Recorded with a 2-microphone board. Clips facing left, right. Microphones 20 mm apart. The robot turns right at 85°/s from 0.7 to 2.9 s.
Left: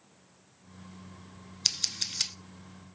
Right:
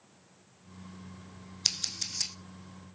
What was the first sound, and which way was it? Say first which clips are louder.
Scissors: left 2 dB; 5° left (ahead or behind).